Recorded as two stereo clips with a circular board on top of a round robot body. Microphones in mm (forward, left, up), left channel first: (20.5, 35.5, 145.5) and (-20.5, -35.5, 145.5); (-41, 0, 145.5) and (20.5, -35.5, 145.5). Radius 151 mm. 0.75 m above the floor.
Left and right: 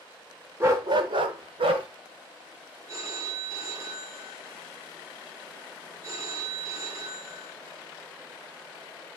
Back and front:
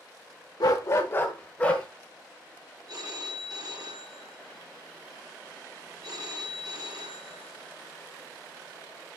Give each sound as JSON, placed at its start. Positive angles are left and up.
{"t": 0.6, "sound": "a dog barking", "azimuth_deg": 175, "distance_m": 0.5}
{"t": 2.9, "sound": "a phone ringing", "azimuth_deg": -65, "distance_m": 1.7}